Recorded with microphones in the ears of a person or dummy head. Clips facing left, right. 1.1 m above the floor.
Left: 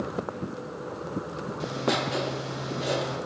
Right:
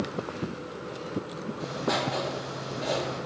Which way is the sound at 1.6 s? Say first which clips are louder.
Left 2 dB; 35° left (ahead or behind).